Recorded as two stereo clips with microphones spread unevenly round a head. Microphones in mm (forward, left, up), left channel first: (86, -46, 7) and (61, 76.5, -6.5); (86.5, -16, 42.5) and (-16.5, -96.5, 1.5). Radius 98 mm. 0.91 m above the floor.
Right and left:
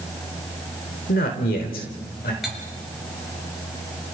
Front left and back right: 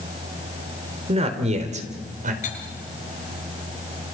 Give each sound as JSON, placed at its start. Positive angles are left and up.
{"t": 1.1, "sound": "a man speaking", "azimuth_deg": -105, "distance_m": 3.5}
{"t": 2.4, "sound": "cutlery clinking", "azimuth_deg": 15, "distance_m": 8.0}